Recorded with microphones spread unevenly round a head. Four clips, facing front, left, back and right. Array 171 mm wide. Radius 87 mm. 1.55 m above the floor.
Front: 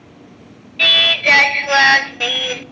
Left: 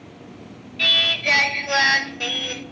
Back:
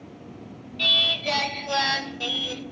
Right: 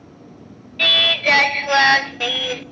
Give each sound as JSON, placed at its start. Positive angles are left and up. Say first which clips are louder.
{"t": 0.8, "sound": "singing", "louder": "right 5 dB, front 10 dB", "azimuth_deg": -35, "distance_m": 0.6}